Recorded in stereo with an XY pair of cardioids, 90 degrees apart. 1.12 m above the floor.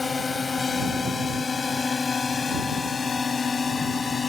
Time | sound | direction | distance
0.0 | a drone | 35° left | ?